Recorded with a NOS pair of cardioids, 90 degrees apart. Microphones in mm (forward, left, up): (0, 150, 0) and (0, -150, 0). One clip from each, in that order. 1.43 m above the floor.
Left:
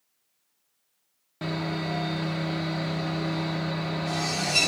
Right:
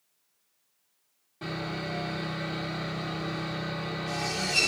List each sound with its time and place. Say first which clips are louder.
1.4 s sawing: left 3 dB; 45° left, 1.2 m